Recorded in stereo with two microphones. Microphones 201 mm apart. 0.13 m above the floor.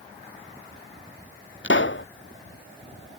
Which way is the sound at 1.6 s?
65° left (ahead or behind).